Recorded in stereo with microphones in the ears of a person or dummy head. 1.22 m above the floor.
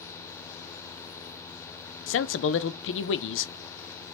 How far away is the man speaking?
About 0.5 m.